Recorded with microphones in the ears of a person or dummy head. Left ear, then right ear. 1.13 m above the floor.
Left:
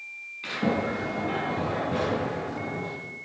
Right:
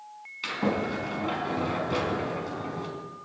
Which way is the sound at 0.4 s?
50° right (ahead or behind).